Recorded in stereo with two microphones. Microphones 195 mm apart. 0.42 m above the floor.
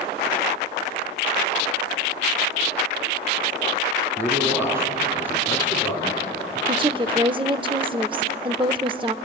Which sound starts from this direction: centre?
A man speaking, at 4.2 s.